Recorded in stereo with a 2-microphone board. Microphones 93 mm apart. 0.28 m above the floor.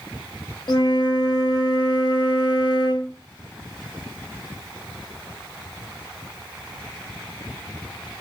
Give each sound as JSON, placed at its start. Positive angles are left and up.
{"t": 0.7, "sound": "a flute", "side_deg": 50, "distance_m": 0.5}